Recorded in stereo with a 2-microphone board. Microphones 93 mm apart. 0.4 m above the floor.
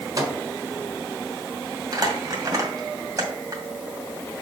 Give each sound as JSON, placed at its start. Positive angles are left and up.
{"t": 0.2, "sound": "a microwave", "side_deg": -40, "distance_m": 1.4}
{"t": 1.9, "sound": "crumpling", "side_deg": -40, "distance_m": 2.0}